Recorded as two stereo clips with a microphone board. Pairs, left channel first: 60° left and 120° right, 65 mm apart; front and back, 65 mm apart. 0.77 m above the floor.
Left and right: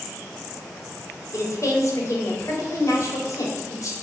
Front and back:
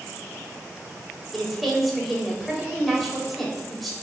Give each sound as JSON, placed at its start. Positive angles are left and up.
{"t": 1.3, "sound": "a woman speaking", "azimuth_deg": 90, "distance_m": 3.5}